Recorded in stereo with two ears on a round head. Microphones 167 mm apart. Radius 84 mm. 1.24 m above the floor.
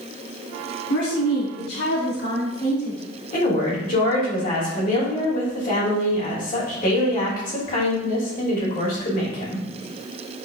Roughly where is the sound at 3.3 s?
Left.